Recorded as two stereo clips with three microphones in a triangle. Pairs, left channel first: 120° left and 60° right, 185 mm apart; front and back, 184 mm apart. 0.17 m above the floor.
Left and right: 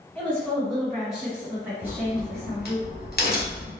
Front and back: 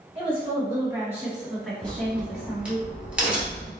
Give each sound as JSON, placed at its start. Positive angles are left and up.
{"t": 0.1, "sound": "a woman speaking", "azimuth_deg": -165, "distance_m": 1.6}
{"t": 1.8, "sound": "a crack", "azimuth_deg": 100, "distance_m": 1.5}